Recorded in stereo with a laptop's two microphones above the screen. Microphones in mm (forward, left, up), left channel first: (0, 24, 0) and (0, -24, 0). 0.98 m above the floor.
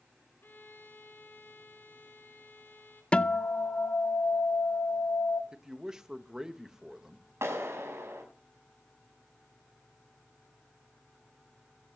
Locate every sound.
0.4 s a violin: 50° left (ahead or behind), 3.5 m
3.1 s a guitar: 25° left (ahead or behind), 0.6 m
5.5 s a man speaking: 10° right (ahead or behind), 1.5 m
7.4 s a clap: 75° right (ahead or behind), 5.5 m